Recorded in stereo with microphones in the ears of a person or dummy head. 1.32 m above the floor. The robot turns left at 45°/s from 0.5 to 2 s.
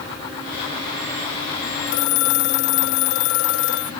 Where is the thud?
I don't hear a thud.